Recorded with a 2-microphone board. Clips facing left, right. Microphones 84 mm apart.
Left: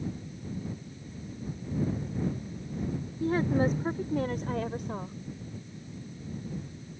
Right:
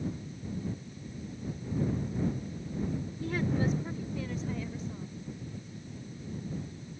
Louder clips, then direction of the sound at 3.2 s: Left 5 dB; 35° left (ahead or behind).